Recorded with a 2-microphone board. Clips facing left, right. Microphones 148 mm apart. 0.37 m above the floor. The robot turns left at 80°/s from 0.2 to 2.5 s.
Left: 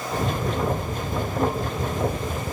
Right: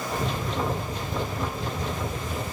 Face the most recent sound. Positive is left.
No sound to turn to.